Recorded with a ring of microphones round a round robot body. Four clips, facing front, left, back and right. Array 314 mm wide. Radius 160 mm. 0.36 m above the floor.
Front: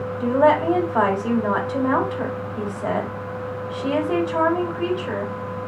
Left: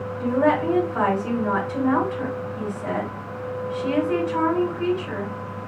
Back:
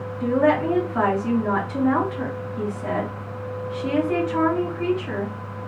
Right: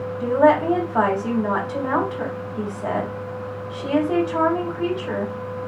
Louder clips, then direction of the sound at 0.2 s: Right 4 dB, front 2 dB; 35° right.